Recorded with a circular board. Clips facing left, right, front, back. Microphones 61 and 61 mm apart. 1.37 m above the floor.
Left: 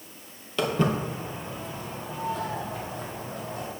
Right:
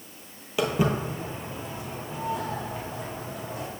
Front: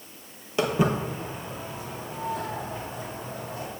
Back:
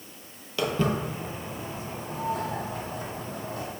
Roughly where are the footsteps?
Ahead right.